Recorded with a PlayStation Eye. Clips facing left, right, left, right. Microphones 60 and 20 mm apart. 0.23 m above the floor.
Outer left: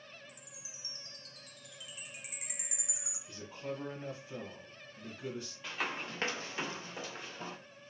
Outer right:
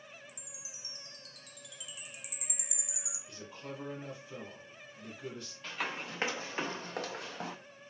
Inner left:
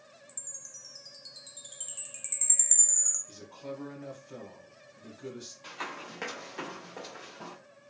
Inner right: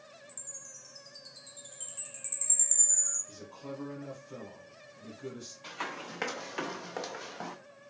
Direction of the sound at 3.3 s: 20° left (ahead or behind).